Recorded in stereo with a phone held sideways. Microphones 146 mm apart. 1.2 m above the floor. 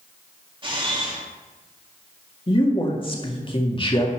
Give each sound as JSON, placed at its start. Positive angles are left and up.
{"t": 0.6, "sound": "a camera shutter", "side_deg": -35, "distance_m": 2.5}
{"t": 2.5, "sound": "a man speaking", "side_deg": 35, "distance_m": 2.0}